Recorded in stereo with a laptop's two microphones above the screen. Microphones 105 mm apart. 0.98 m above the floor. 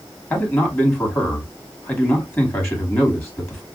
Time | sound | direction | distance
0.3 | a man speaking | 25° left (ahead or behind) | 2.5 m